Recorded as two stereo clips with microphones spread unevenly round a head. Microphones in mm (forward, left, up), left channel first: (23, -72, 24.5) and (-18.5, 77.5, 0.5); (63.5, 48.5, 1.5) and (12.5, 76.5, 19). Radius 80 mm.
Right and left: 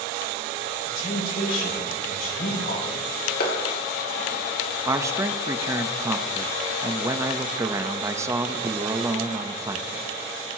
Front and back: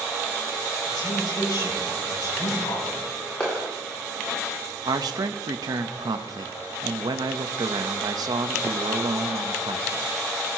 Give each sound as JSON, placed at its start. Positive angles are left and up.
{"t": 0.9, "sound": "a woman speaking", "azimuth_deg": -40, "distance_m": 7.0}
{"t": 3.4, "sound": "a clap", "azimuth_deg": -105, "distance_m": 2.5}
{"t": 4.8, "sound": "a man speaking", "azimuth_deg": 170, "distance_m": 0.9}